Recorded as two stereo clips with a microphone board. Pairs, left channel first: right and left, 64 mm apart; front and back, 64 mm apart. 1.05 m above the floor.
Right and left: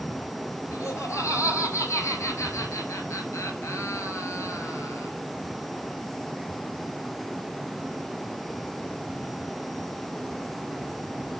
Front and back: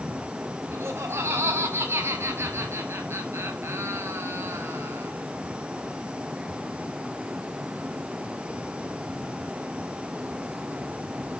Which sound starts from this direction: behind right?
Laughter, at 0.7 s.